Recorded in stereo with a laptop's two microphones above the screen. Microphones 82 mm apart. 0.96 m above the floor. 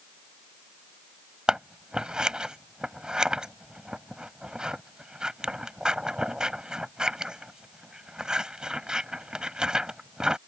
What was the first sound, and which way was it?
Scissors, 10° right (ahead or behind).